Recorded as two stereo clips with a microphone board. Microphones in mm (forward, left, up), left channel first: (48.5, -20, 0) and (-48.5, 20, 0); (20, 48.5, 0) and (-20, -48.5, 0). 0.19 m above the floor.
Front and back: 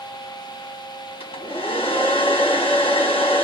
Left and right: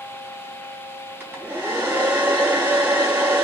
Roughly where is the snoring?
No snoring in this recording.